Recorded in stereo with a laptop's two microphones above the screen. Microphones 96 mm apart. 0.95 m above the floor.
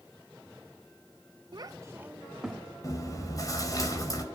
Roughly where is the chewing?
Left.